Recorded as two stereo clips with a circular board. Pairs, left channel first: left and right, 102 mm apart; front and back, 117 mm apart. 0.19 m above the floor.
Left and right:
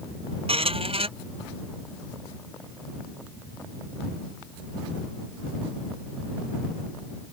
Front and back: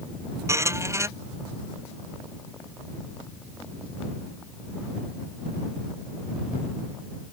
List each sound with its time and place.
0.5 s a squeak: 115° right